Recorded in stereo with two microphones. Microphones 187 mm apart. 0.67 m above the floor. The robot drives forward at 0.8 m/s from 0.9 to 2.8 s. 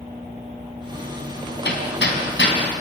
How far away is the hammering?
About 3 m.